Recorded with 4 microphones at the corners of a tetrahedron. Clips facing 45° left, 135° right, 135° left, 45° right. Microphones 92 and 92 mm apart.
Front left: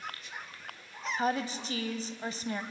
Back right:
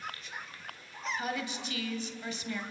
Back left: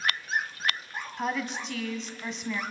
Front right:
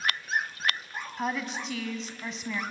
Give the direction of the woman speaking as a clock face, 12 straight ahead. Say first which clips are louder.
Front left 7 dB, back left 1 dB; 11 o'clock.